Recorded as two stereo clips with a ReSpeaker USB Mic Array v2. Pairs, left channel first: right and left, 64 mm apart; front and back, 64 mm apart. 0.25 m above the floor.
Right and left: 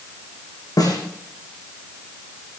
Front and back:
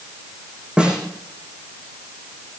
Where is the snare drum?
105° right, 9 m.